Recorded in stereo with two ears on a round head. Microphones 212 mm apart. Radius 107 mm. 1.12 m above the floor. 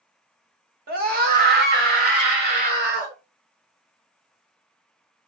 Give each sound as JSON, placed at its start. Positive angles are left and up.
{"t": 0.9, "sound": "a scream", "side_deg": -40, "distance_m": 1.3}